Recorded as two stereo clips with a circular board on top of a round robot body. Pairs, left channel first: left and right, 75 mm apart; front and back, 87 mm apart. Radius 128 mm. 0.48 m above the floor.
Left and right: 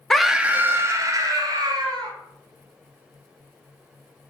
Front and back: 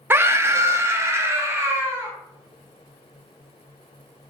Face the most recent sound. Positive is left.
turn(degrees=-115)